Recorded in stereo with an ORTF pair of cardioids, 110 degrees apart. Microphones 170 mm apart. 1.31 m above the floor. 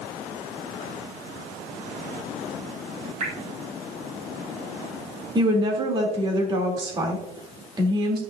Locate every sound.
3.2 s dripping: 45° right, 1.9 m
5.3 s a woman speaking: 25° right, 3 m